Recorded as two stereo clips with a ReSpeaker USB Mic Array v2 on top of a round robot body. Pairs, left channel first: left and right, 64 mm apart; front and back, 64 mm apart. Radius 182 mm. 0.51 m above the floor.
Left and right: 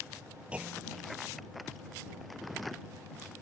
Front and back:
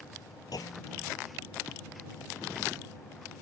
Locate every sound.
0.5 s a clunk: 20° right